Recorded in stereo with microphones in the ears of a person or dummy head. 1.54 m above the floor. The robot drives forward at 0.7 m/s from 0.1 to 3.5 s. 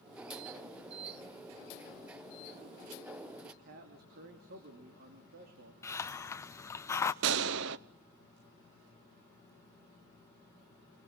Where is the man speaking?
65° right (ahead or behind), 2.5 m.